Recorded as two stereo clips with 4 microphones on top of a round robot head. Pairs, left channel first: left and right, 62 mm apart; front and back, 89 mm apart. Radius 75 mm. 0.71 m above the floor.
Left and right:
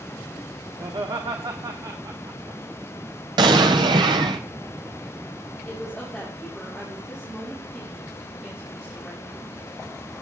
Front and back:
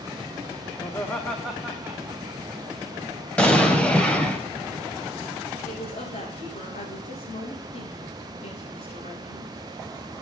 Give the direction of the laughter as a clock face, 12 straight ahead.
2 o'clock.